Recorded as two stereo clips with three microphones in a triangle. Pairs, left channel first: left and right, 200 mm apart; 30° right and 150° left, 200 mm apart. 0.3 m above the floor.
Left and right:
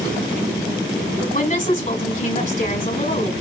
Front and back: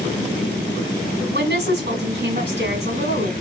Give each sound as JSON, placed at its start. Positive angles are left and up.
{"t": 1.3, "sound": "a woman speaking", "azimuth_deg": 130, "distance_m": 2.5}